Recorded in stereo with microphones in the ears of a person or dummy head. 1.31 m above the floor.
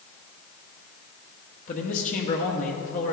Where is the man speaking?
40° left (ahead or behind), 1.1 m.